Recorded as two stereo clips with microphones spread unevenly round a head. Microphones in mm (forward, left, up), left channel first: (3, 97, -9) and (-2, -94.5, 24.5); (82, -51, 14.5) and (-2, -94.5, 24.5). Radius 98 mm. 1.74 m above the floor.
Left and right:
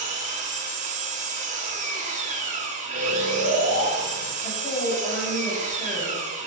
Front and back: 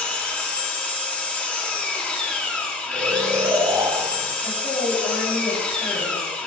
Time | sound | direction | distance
0.0 | an engine running | 50° right | 2.5 m
2.9 | snoring | 120° right | 3.5 m
4.4 | a woman speaking | 15° left | 4 m